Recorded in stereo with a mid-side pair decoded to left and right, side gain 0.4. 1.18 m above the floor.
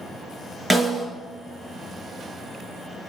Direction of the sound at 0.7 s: 10° right.